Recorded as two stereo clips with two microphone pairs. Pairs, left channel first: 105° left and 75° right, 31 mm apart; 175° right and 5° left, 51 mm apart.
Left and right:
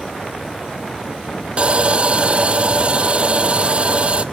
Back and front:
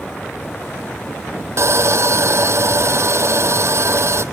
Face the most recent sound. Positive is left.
turn(degrees=-20)